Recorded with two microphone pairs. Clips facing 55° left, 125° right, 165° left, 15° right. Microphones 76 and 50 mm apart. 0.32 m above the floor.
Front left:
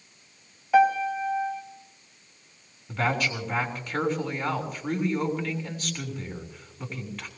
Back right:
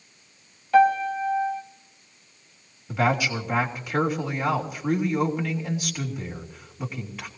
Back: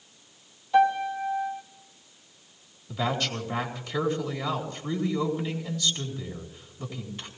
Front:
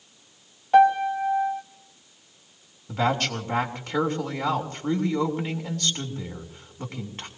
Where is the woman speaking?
45° right, 3 m.